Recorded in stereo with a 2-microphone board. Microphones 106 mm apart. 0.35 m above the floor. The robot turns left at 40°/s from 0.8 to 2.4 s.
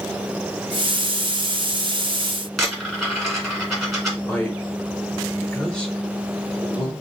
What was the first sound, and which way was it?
A dropped coin, centre (ahead or behind).